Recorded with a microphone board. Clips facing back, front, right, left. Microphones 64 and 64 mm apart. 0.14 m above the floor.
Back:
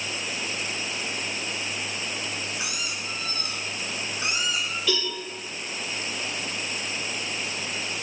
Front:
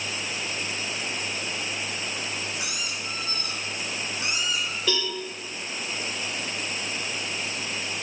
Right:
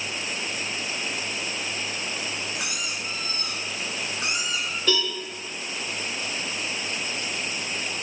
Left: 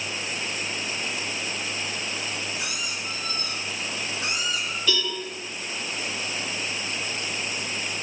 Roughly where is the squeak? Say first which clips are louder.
Even, even; behind right.